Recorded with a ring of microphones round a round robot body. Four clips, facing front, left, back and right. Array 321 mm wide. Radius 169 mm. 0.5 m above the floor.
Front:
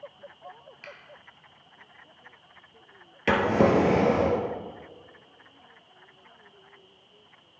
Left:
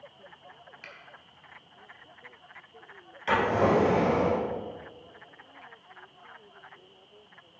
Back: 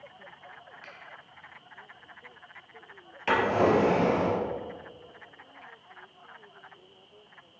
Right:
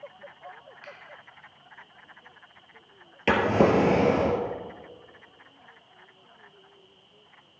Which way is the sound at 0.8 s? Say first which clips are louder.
Right 5 dB, front 7 dB; 40° left.